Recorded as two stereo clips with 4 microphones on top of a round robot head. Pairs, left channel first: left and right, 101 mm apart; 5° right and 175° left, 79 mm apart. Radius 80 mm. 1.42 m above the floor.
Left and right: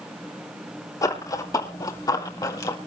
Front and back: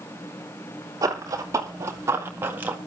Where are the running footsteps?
140° left, 2.5 m; by 2.8 s 125° left, 1.7 m.